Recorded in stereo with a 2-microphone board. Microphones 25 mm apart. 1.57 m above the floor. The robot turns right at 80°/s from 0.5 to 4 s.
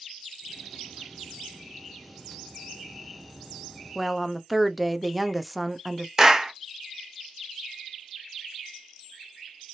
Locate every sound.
4.0 s a woman speaking: 5° left (ahead or behind), 0.5 m; by 6.1 s centre (ahead or behind), 0.5 m
6.2 s a clap: 15° right (ahead or behind), 0.6 m